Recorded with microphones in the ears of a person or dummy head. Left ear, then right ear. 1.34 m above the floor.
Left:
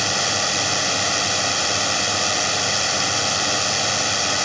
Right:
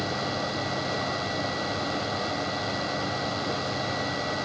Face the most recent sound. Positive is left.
turn(degrees=65)  # may be behind; listen again after turning